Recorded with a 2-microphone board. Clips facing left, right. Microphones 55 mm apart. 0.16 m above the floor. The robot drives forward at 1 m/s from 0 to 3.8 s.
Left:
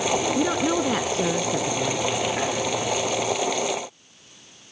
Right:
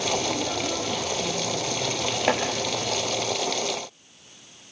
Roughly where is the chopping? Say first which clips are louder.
Right 3 dB; right.